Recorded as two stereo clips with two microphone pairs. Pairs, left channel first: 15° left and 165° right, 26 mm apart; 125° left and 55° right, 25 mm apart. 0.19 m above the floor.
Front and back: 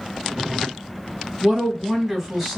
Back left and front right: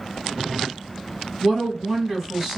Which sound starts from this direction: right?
A woman speaking, at 1.4 s.